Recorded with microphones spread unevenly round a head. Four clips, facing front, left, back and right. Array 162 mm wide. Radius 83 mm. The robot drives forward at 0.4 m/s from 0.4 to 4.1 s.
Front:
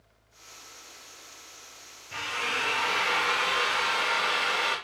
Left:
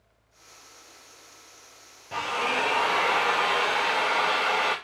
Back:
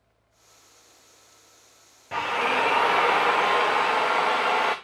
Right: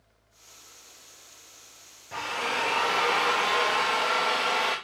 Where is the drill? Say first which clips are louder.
Left 3 dB, back 9 dB; 165° left, 0.5 m; by 4.8 s 175° left, 1.3 m.